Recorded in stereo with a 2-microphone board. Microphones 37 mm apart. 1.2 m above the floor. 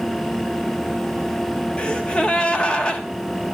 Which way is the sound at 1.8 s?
25° left (ahead or behind).